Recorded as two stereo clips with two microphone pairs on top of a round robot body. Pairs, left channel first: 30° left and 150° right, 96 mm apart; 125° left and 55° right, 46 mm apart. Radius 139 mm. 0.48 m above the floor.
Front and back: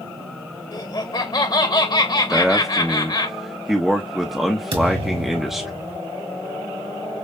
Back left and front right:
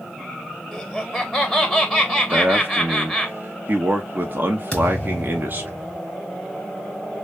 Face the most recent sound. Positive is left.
turn(degrees=-160)